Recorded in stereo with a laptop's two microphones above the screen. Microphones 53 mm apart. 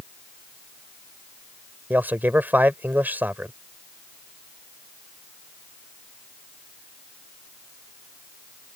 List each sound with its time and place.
1.9 s a man speaking: 35° right (ahead or behind)